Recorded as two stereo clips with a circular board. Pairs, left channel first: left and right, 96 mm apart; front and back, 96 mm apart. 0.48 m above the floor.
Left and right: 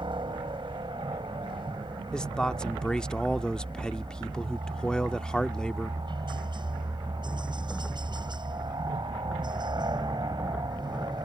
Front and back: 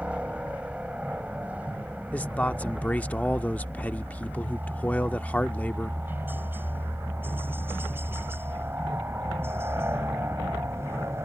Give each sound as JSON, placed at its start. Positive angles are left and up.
{"t": 0.0, "sound": "a helicopter", "azimuth_deg": -105}
{"t": 2.1, "sound": "a man speaking", "azimuth_deg": 30}